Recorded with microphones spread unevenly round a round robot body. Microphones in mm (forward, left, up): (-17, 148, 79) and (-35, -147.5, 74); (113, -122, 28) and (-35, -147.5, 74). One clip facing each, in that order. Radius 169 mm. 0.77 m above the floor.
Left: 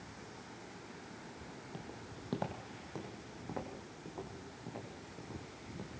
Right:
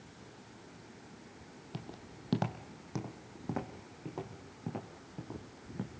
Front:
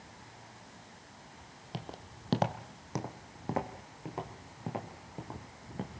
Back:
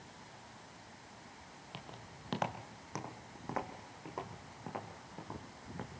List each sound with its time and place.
1.7 s footsteps: 40° right, 1.6 m; by 5.9 s 55° right, 4 m